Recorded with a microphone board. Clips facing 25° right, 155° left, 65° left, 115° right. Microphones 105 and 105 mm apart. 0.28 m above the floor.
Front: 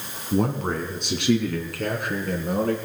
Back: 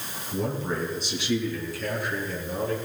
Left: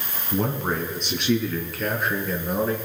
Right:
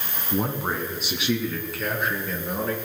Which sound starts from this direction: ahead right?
A man speaking, at 0.3 s.